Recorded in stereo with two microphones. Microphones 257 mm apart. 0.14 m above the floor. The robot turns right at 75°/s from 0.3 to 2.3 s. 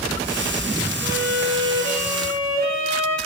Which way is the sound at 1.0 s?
20° right.